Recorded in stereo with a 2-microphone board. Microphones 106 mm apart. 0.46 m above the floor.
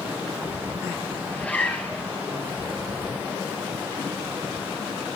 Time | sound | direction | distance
1.3 | a zipper | 15° left (ahead or behind) | 3 m